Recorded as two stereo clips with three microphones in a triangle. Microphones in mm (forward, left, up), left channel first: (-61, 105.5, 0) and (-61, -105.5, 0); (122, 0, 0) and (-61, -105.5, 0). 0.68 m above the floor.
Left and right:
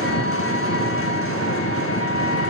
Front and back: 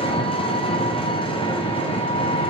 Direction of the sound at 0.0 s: 95° left.